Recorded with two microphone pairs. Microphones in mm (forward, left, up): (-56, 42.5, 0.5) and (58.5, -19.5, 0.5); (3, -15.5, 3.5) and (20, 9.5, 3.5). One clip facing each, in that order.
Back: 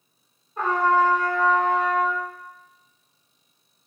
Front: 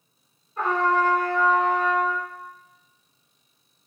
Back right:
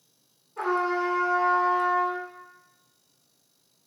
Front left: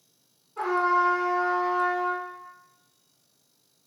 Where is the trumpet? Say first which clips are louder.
Back 2 dB, front left 3 dB; 125° left, 1.6 m.